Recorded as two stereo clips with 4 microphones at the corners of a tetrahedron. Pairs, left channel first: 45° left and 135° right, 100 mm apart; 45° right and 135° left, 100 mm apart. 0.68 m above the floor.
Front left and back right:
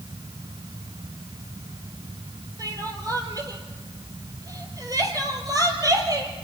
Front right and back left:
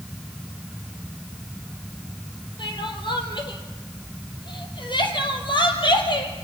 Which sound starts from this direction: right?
Crying, at 2.6 s.